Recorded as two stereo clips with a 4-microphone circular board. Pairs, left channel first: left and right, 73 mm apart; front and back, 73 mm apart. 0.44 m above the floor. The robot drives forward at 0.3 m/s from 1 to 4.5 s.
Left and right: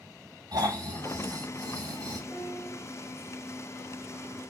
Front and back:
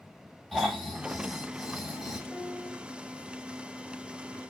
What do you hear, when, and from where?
0.5 s snoring: 90° right, 3 m; by 2.2 s 100° right, 3 m
2.3 s a piano: 115° right, 1.7 m; by 2.8 s 125° right, 1.8 m